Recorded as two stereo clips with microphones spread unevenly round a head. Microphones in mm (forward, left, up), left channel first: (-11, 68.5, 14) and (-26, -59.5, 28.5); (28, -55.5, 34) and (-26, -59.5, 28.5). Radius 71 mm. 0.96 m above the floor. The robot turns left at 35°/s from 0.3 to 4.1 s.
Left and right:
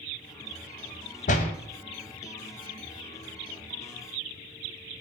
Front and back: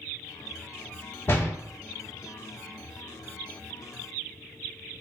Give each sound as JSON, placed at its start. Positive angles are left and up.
{"t": 1.3, "sound": "a door slam", "azimuth_deg": 65, "distance_m": 0.6}